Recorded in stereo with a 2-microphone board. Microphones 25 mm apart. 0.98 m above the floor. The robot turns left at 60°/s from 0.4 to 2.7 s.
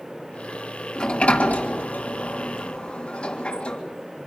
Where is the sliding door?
30° left (ahead or behind), 2.5 m; by 3.8 s 40° left (ahead or behind), 2.5 m.